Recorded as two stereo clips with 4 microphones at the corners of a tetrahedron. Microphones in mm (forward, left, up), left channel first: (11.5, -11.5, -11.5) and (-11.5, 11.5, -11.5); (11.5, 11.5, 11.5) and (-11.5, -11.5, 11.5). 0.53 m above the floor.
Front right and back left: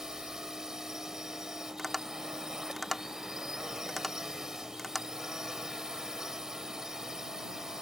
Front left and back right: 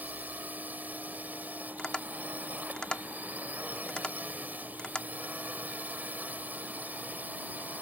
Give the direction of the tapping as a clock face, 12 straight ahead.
10 o'clock.